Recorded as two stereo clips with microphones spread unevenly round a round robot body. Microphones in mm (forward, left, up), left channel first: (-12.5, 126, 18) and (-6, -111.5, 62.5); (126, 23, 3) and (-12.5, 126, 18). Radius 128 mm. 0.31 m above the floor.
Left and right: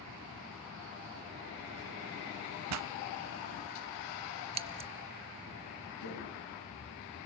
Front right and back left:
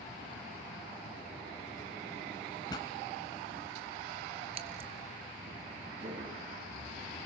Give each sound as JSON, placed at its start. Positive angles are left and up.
{"t": 2.7, "sound": "a pop", "azimuth_deg": -110, "distance_m": 0.6}
{"t": 4.5, "sound": "scissors", "azimuth_deg": -160, "distance_m": 0.6}
{"t": 6.0, "sound": "footsteps", "azimuth_deg": 90, "distance_m": 9.0}